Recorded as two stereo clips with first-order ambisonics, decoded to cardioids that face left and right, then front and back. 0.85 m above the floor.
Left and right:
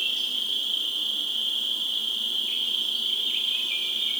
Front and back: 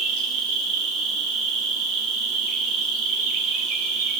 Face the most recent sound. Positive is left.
turn(degrees=-175)